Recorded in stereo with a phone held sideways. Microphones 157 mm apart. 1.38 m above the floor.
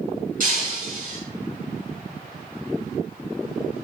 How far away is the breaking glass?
About 5.5 m.